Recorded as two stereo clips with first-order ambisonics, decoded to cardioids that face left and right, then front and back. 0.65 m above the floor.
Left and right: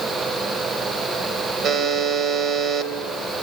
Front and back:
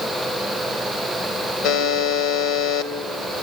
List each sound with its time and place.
1.6 s a buzzer: 35° right, 2 m